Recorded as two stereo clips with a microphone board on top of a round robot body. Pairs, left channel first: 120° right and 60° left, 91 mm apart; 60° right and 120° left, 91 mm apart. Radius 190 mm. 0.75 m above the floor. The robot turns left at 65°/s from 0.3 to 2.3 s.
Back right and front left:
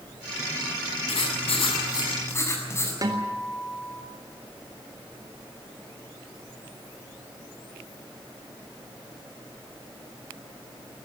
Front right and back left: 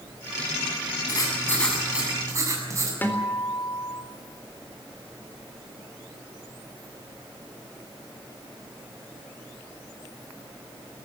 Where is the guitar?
10° left, 4 m.